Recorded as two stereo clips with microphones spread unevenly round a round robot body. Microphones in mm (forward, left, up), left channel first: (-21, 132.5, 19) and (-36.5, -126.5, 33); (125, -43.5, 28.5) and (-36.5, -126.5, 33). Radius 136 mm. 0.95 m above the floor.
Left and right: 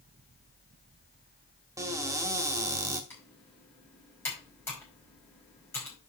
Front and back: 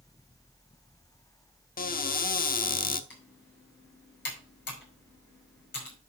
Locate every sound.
1.8 s a cupboard door: 15° right, 1.1 m
3.1 s typing on a keyboard: 5° left, 5 m